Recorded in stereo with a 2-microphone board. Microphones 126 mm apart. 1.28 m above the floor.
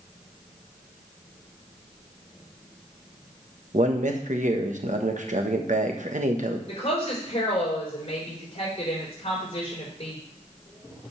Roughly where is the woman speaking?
Left.